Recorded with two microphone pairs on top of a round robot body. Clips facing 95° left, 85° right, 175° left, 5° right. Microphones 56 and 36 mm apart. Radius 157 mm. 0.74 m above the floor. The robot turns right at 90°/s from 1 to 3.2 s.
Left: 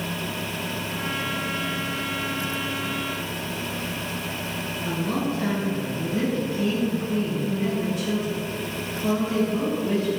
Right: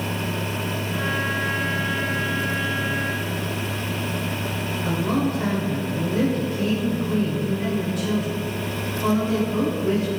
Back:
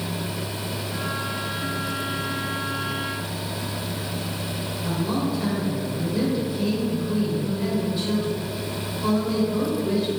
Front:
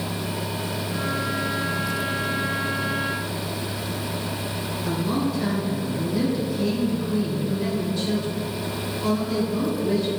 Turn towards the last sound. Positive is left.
turn(degrees=-105)